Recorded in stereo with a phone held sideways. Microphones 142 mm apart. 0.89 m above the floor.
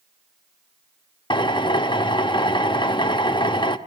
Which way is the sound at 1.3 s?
35° left (ahead or behind).